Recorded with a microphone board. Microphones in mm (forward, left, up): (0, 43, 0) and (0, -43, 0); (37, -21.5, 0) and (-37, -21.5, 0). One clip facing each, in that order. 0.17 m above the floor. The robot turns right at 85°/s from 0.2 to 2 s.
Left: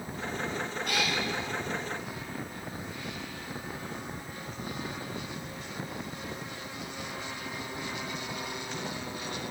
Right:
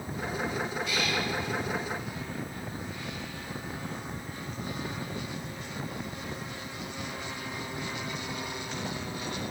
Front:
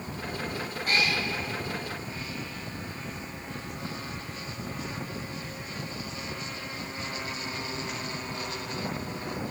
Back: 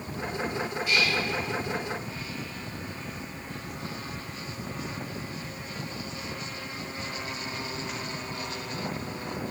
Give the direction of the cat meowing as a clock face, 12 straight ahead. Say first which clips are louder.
Even, even; 10 o'clock.